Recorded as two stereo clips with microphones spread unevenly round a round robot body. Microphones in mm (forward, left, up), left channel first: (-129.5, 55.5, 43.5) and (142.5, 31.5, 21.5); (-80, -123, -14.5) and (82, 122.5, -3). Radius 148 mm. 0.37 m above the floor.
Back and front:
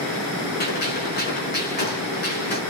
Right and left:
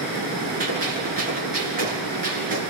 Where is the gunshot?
120° left, 5.5 m.